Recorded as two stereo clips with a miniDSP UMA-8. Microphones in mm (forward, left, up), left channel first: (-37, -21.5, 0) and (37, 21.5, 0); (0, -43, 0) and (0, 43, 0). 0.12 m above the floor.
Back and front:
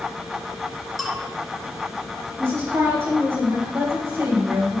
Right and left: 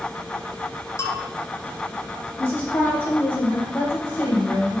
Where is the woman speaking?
30° right, 4 m.